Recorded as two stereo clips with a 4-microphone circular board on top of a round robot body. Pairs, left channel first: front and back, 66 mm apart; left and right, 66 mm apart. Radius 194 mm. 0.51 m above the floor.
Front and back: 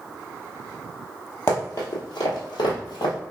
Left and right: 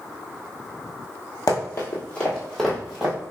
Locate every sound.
1.5 s running footsteps: 55° left, 1.1 m; by 3.1 s 15° right, 1.4 m